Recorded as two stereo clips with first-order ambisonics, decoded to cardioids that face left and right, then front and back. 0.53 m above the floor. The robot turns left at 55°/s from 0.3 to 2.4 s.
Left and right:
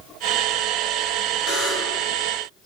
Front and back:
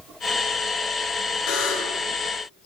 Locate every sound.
1.5 s a buzzer: 35° left, 4 m; by 2.0 s 5° left, 4 m